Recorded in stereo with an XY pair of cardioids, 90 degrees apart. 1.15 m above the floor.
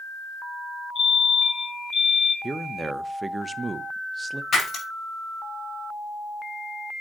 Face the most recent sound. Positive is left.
turn(degrees=60)